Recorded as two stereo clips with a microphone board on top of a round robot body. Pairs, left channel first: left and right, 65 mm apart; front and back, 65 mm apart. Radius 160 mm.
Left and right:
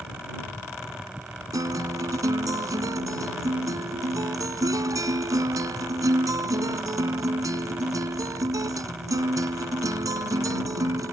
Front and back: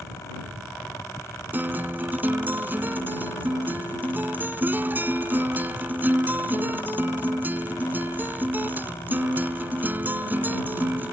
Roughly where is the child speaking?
No child speaking in this recording.